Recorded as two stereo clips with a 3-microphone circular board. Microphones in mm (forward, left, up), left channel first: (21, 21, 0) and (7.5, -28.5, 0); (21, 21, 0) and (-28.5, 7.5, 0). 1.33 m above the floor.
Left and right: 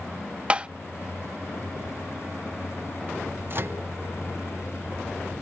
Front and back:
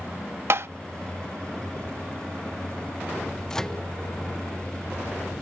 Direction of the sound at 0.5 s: 165° right.